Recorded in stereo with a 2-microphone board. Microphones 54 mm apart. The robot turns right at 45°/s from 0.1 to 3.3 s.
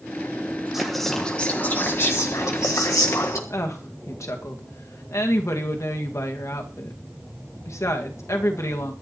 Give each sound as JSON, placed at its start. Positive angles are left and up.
{"t": 0.7, "sound": "whispering", "azimuth_deg": -5, "distance_m": 1.5}
{"t": 3.5, "sound": "a woman speaking", "side_deg": 70, "distance_m": 1.9}